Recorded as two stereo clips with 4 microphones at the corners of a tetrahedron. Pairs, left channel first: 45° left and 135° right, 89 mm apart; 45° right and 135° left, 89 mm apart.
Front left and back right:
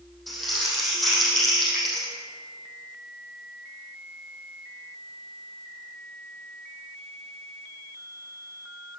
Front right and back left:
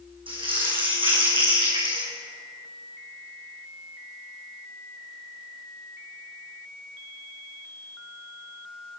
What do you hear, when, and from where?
0.3 s crumpling: 135° left, 5 m